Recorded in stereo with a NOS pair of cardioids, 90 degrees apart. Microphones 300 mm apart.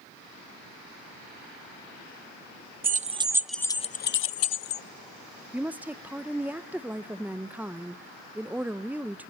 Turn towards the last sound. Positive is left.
turn(degrees=-5)